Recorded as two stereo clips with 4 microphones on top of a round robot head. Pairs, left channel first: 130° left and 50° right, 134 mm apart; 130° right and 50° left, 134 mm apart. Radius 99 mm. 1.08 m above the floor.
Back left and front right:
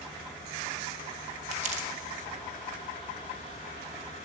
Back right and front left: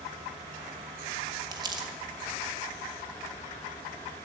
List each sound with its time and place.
1.5 s crumpling: 10° right, 1.4 m